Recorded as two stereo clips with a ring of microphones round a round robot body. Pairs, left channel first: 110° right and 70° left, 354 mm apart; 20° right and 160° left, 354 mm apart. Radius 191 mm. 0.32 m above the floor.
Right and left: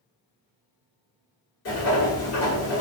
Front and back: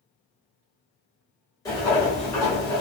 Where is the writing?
100° right, 1.5 m.